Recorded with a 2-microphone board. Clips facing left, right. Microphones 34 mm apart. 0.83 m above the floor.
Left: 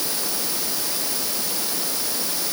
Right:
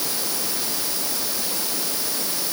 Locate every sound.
Only background noise.